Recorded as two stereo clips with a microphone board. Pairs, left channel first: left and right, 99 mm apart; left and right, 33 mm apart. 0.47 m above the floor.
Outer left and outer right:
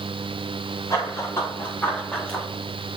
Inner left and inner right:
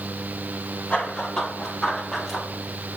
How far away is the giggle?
I don't hear a giggle.